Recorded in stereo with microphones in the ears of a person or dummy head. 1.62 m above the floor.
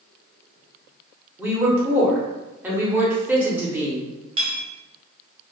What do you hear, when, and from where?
1.4 s a woman speaking: 10° right (ahead or behind), 1.2 m
4.4 s a clink: 35° right (ahead or behind), 1.4 m